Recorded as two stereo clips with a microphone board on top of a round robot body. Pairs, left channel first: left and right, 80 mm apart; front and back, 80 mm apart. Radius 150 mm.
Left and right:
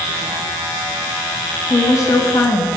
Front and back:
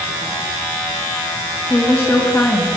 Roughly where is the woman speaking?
Ahead left.